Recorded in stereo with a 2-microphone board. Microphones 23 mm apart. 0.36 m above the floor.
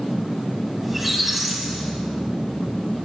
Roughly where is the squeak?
Centre.